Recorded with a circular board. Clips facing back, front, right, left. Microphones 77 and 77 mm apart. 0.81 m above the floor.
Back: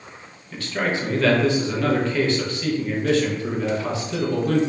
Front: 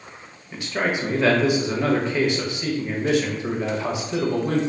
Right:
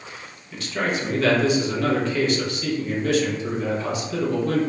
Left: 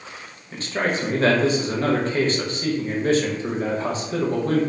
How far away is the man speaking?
About 0.6 m.